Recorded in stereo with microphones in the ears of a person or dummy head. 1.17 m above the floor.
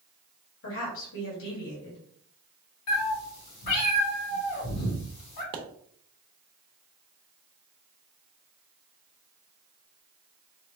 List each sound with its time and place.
0.6 s a woman speaking: 70° left (ahead or behind), 1.9 m
2.9 s a cat meowing: 60° left (ahead or behind), 1.8 m
5.5 s a pop: 25° right (ahead or behind), 0.9 m